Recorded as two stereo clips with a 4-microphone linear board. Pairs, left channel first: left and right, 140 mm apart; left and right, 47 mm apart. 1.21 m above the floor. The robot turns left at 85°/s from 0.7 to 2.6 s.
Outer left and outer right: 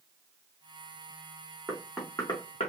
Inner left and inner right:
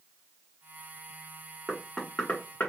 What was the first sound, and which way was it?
Knocking, 20° right (ahead or behind).